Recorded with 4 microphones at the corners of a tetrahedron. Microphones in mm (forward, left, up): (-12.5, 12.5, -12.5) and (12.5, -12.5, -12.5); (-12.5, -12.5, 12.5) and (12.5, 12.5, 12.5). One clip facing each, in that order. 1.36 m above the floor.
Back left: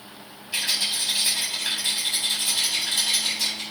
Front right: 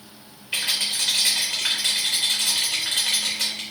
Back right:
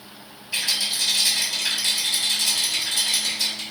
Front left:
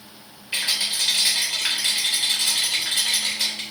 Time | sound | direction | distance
0.5 | a rattle | 10° right | 3.5 m